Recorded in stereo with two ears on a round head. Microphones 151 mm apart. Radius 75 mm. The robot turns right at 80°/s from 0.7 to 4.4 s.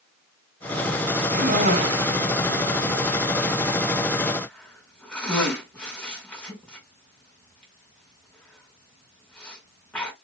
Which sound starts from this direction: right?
A cough, at 1.3 s.